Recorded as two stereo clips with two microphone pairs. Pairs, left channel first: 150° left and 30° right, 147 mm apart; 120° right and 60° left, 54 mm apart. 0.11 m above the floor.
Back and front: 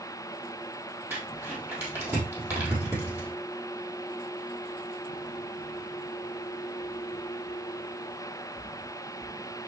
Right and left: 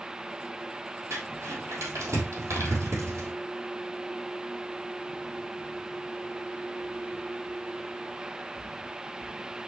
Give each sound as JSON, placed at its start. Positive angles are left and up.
{"t": 1.1, "sound": "crumpling", "azimuth_deg": 45, "distance_m": 3.5}